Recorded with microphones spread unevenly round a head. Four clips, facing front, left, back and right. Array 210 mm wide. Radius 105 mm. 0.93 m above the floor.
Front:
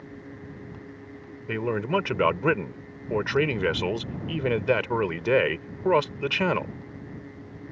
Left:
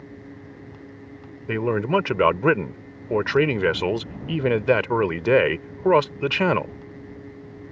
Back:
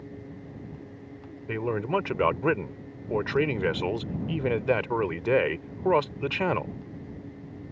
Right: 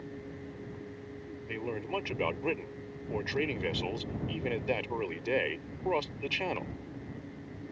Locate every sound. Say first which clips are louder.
1.5 s a man speaking: left 14 dB, front 1 dB; 60° left